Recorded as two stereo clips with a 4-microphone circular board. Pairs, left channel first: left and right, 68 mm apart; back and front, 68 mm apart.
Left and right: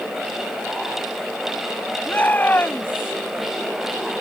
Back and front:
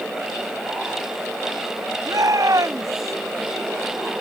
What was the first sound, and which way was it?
A shout, 25° left.